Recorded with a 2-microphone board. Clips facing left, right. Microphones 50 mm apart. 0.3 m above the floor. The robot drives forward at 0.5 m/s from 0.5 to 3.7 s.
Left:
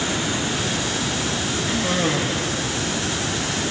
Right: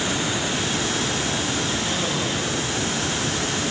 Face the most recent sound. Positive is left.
turn(degrees=45)  # may be behind; listen again after turning